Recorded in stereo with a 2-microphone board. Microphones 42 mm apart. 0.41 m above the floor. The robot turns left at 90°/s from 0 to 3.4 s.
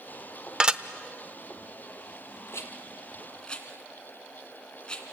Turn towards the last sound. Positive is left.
turn(degrees=20)  # may be behind; listen again after turning